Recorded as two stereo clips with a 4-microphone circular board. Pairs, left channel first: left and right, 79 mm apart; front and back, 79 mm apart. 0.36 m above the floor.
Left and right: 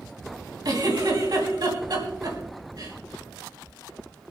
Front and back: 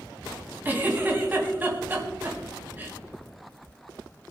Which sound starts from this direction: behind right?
A giggle, at 0.7 s.